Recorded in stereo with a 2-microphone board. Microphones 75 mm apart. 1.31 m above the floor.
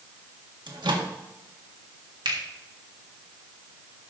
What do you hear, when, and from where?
0.7 s a microwave: 75° right (ahead or behind), 1.5 m
2.2 s a finger snap: 75° right (ahead or behind), 2.5 m